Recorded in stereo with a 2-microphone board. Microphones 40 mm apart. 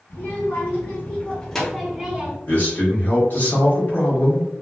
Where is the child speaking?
60° left (ahead or behind), 1.4 m; by 2.4 s 25° right (ahead or behind), 0.9 m.